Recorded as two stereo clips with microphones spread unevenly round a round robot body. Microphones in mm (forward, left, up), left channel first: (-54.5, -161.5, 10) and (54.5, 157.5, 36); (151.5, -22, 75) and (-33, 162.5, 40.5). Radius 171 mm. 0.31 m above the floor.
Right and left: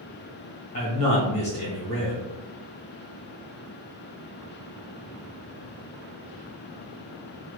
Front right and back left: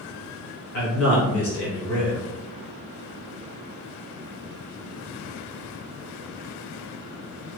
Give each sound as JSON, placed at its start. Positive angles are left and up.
{"t": 0.7, "sound": "a man speaking", "azimuth_deg": -50, "distance_m": 1.4}